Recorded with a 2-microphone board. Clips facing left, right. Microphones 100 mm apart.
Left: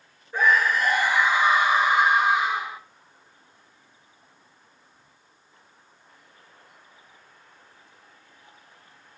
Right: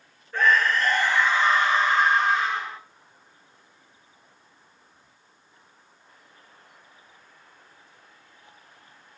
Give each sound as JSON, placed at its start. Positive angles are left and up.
{"t": 0.3, "sound": "a scream", "side_deg": 10, "distance_m": 1.1}